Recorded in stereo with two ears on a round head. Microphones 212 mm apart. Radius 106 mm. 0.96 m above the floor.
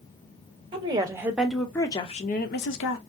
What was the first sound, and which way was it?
A woman speaking, 20° right (ahead or behind).